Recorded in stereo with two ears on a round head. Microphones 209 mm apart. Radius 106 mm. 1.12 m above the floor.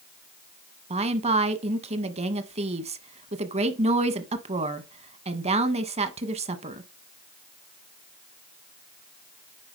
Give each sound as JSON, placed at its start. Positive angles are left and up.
{"t": 0.9, "sound": "a woman speaking", "side_deg": -30, "distance_m": 1.3}